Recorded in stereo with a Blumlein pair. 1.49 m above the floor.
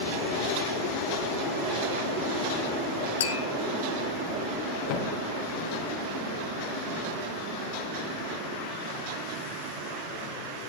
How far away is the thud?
About 3 m.